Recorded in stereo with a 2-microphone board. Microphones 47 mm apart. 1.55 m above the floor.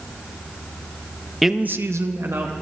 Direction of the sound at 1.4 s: 5° right (ahead or behind).